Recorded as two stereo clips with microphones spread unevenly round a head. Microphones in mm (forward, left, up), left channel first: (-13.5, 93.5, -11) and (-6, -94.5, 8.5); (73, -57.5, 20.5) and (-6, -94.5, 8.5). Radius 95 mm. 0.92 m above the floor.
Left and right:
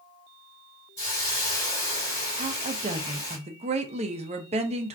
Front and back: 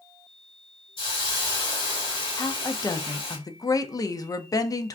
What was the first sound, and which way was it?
A hiss, 20° left.